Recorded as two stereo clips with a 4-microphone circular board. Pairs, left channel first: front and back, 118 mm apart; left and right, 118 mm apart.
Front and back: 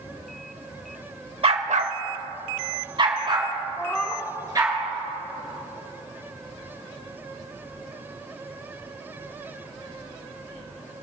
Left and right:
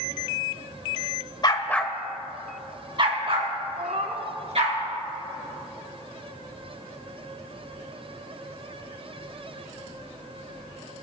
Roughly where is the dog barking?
Behind left.